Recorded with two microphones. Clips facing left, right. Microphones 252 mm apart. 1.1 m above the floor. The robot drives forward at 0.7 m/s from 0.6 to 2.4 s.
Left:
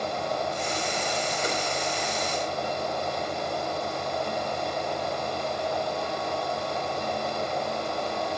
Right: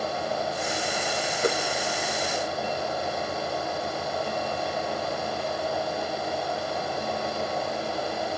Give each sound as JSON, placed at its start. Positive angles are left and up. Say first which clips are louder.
{"t": 1.4, "sound": "a whoosh", "louder": "right 9 dB", "side_deg": -65, "distance_m": 0.9}